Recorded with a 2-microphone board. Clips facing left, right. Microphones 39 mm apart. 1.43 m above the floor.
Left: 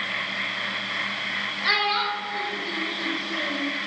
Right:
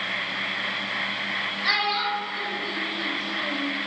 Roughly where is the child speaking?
Centre.